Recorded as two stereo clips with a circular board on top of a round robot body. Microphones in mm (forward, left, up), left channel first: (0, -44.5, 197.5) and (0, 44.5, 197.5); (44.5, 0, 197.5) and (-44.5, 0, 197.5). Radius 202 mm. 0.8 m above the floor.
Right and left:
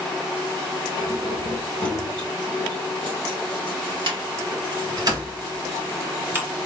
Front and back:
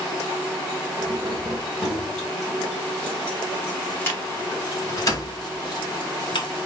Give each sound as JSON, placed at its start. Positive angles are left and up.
{"t": 1.0, "sound": "keys jangling", "azimuth_deg": 95, "distance_m": 3.0}